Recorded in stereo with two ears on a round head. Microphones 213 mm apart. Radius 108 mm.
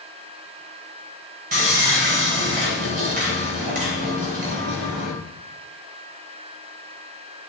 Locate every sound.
1.5 s sawing: 35° right (ahead or behind), 3 m